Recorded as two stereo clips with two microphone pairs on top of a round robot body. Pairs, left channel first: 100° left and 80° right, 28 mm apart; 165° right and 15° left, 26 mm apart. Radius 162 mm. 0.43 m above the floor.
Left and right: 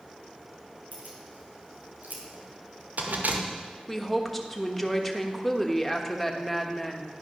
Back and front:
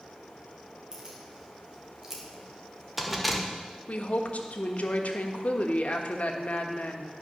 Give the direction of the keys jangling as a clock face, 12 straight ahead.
2 o'clock.